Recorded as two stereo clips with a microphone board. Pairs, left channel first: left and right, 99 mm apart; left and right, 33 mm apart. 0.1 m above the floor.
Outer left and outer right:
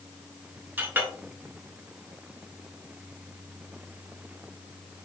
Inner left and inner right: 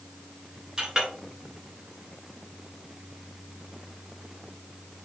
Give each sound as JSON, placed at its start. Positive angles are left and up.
{"t": 0.8, "sound": "a clink", "side_deg": -20, "distance_m": 1.0}